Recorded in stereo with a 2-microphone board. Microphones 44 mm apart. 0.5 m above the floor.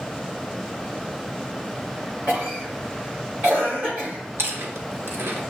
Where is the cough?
40° right (ahead or behind), 2.5 m.